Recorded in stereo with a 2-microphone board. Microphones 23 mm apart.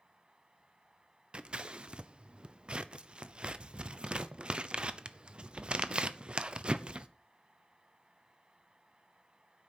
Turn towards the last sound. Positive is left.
turn(degrees=-45)  # may be behind; listen again after turning